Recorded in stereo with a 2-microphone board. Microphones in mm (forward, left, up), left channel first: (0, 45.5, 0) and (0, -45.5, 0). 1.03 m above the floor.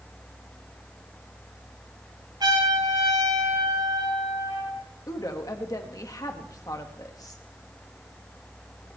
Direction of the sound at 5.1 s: 45° left (ahead or behind).